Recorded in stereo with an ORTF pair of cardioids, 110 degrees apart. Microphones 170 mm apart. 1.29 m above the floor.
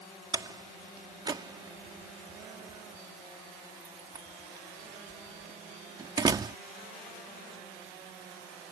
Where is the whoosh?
No whoosh in this recording.